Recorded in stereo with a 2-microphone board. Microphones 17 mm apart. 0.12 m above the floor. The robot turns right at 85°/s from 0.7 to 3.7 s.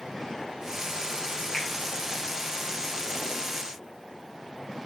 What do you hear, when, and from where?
1.5 s a finger snap: 45° left (ahead or behind), 9.5 m; by 1.7 s 55° left (ahead or behind), 9.5 m